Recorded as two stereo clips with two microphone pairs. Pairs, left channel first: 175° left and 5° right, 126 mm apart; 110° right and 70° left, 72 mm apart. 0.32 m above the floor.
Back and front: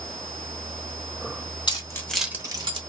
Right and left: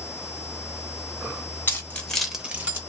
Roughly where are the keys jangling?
Behind right.